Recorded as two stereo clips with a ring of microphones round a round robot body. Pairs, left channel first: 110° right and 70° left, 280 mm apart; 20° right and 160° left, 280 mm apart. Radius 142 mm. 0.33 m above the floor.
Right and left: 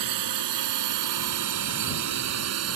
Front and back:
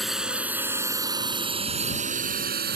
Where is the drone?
70° left; by 2.8 s 105° left.